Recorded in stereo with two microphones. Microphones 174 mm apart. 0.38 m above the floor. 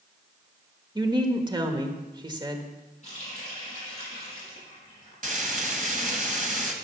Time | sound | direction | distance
0.9 | a woman speaking | 25° right (ahead or behind) | 1.2 m
3.0 | a running tap | 40° left (ahead or behind) | 6.5 m
5.2 | frying | 50° right (ahead or behind) | 1.7 m